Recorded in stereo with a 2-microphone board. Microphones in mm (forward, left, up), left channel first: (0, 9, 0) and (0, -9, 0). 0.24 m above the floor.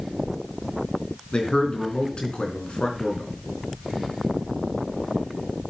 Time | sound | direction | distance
1.3 | a man speaking | 60° left (ahead or behind) | 3.5 m